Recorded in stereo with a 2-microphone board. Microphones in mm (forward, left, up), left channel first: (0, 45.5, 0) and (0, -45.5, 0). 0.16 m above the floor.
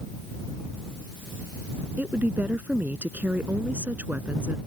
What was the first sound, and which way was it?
A woman speaking, 20° right (ahead or behind).